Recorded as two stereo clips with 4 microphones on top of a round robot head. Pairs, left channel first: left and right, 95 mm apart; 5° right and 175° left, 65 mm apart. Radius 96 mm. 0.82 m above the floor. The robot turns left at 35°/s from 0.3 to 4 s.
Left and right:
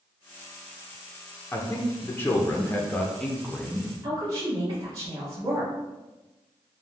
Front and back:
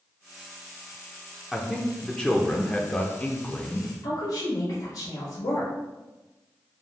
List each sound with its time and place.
1.5 s a man speaking: 80° left, 0.6 m; by 3.9 s straight ahead, 0.6 m
4.0 s a woman speaking: 35° right, 1.2 m